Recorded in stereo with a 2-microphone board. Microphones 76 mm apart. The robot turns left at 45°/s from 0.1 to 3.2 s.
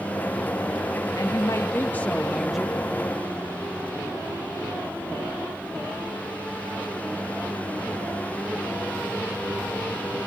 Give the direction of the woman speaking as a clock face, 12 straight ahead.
10 o'clock.